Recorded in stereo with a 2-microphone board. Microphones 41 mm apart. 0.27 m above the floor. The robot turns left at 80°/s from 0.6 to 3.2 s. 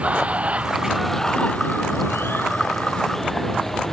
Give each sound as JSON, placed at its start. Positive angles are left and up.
{"t": 0.0, "sound": "running water", "azimuth_deg": -145}